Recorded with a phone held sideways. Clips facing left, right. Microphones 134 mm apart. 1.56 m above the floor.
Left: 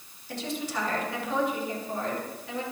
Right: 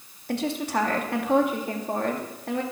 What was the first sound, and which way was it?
A woman speaking, 65° right (ahead or behind).